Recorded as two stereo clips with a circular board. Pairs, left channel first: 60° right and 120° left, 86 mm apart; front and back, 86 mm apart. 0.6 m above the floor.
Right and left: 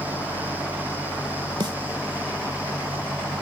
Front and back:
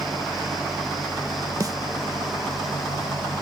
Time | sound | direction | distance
1.6 | a snare drum | 140° left | ?